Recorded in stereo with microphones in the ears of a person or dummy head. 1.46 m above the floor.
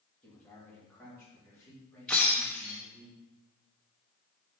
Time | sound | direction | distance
0.2 | a man speaking | centre (ahead or behind) | 3.5 m
2.1 | breaking glass | centre (ahead or behind) | 1.4 m